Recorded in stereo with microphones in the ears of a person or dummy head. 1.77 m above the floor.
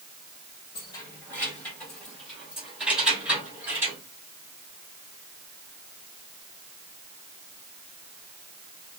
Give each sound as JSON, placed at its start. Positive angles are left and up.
{"t": 0.8, "sound": "keys jangling", "side_deg": 20, "distance_m": 1.8}